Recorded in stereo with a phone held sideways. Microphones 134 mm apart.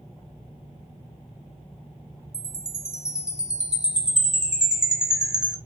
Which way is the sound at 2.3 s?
5° right (ahead or behind).